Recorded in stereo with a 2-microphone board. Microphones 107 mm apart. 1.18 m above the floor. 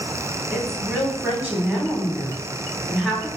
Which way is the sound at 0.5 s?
15° right (ahead or behind).